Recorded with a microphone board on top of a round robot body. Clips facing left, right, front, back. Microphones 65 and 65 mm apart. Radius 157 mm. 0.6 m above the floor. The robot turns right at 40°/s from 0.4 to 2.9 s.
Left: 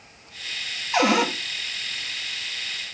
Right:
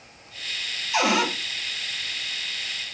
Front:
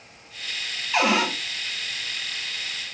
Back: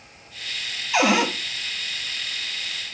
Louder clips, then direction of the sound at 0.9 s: Left 2 dB, back 2 dB; 105° left.